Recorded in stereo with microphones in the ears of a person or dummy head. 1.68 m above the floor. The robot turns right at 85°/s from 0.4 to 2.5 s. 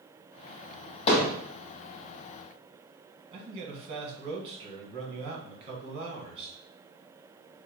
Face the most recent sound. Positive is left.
turn(degrees=-35)  # may be behind; listen again after turning